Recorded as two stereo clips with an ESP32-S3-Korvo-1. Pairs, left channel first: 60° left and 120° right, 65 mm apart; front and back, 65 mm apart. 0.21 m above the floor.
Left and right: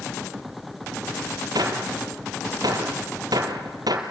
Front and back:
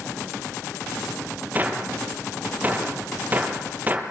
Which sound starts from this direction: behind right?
A gunshot, at 1.6 s.